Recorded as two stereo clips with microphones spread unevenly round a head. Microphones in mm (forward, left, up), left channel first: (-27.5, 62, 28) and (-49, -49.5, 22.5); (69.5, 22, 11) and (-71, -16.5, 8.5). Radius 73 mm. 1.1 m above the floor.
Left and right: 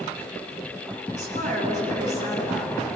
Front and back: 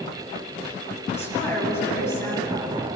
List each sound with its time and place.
1.1 s a woman speaking: 60° right, 9 m